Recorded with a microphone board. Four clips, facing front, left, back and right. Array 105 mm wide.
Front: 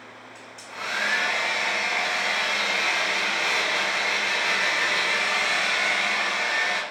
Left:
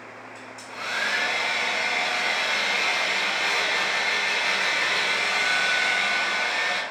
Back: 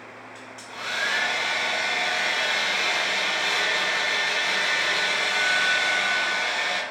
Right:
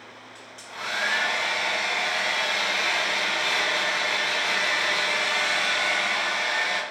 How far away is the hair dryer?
About 1.7 m.